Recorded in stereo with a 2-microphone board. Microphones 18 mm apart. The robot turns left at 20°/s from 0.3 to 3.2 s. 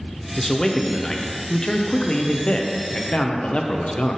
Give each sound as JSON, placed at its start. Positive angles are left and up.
{"t": 0.4, "sound": "a man speaking", "azimuth_deg": 160, "distance_m": 0.6}